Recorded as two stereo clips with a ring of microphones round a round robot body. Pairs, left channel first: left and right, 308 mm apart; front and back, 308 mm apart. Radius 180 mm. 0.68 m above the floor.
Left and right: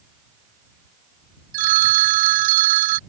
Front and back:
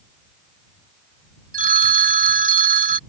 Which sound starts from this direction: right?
A phone ringing, at 1.5 s.